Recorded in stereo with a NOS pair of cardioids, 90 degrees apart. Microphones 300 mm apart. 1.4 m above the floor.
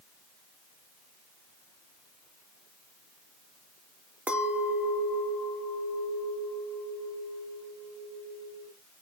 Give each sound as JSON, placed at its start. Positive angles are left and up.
{"t": 4.3, "sound": "a clink", "azimuth_deg": -5, "distance_m": 1.7}